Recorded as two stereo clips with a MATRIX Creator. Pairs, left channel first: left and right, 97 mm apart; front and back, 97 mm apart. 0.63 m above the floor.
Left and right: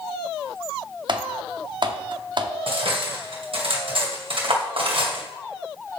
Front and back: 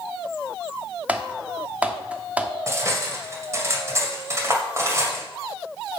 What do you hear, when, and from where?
1.1 s typing on a keyboard: 105° right, 0.8 m
2.7 s cutlery clinking: 120° right, 1.8 m